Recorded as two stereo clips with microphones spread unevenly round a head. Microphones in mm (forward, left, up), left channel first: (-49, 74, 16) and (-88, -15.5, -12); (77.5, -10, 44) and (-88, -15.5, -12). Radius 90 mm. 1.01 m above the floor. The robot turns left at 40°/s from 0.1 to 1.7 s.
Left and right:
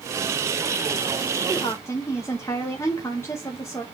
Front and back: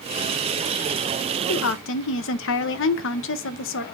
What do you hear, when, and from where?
1.5 s a woman speaking: 5° right, 0.8 m; by 3.9 s 15° right, 0.8 m